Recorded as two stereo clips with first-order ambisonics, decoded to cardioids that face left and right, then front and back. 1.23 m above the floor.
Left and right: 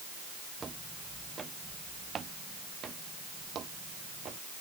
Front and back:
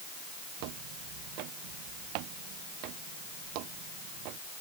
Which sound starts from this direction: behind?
Footsteps, at 0.6 s.